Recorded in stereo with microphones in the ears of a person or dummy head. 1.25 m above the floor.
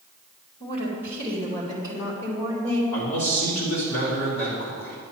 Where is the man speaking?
60° left (ahead or behind), 4 m.